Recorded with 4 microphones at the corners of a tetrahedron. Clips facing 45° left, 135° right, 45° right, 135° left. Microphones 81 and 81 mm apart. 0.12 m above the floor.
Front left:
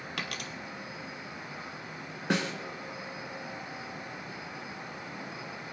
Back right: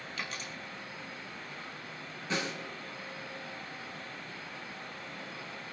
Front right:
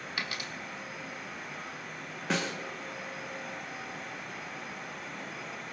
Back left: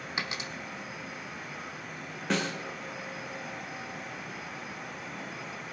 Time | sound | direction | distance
0.2 | a dropped coin | 65° left | 1.3 m
2.3 | a snare drum | 45° left | 2.5 m